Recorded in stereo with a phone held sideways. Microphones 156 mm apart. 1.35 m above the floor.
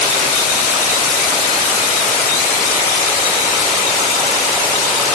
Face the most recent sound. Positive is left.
No sound to turn to.